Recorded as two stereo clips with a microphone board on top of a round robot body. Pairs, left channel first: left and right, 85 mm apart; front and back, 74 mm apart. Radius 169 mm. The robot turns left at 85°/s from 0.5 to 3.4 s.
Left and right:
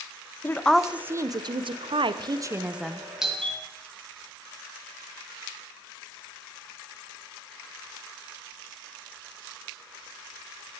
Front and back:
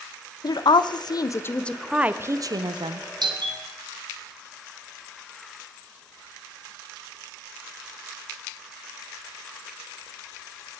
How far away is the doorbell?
About 2.5 m.